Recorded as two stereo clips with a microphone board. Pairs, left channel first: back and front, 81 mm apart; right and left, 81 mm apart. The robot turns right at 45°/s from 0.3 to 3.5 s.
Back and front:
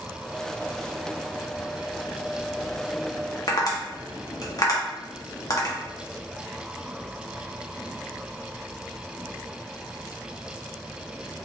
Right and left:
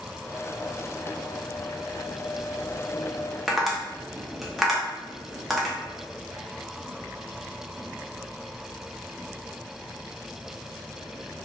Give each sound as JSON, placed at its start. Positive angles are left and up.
{"t": 3.5, "sound": "tapping", "azimuth_deg": 175, "distance_m": 0.6}